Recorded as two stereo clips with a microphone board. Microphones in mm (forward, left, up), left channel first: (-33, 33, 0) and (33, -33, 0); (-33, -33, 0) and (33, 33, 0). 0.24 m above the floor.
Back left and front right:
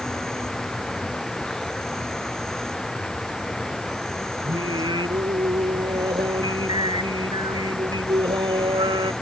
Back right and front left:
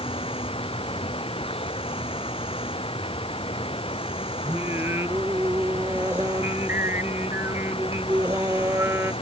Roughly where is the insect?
Behind right.